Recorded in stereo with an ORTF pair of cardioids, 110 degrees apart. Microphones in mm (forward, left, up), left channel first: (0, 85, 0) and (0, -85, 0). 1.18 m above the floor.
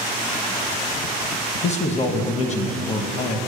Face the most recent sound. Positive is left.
turn(degrees=40)